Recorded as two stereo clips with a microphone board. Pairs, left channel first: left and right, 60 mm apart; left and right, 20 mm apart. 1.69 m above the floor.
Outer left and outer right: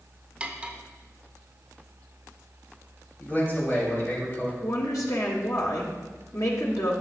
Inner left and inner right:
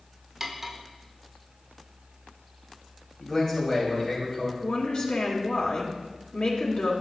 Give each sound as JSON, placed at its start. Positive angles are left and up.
{"t": 0.4, "sound": "cutlery clinking", "side_deg": -20, "distance_m": 0.8}
{"t": 3.2, "sound": "a man speaking", "side_deg": 30, "distance_m": 3.5}
{"t": 4.6, "sound": "a woman speaking", "side_deg": 65, "distance_m": 2.0}